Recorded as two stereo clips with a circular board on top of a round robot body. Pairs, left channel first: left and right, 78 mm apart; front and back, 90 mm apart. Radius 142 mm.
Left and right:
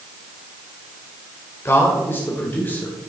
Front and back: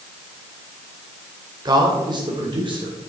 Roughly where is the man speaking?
Behind left.